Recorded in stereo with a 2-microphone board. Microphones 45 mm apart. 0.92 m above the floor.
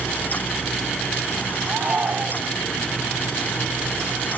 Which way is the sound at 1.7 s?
35° right (ahead or behind).